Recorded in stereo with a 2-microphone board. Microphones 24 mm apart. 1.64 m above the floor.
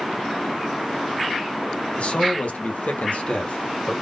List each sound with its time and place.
2.0 s a man speaking: 65° left (ahead or behind), 1.2 m; by 3.9 s 60° left (ahead or behind), 1.3 m